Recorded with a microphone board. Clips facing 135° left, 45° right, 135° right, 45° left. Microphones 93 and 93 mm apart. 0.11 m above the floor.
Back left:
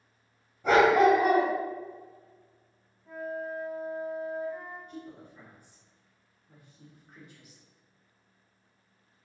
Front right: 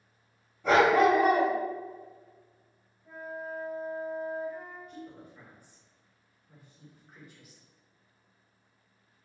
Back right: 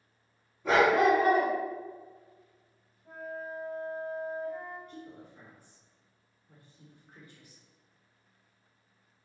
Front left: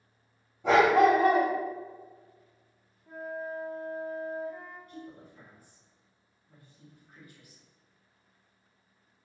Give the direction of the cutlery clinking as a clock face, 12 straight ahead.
No cutlery clinking in this recording.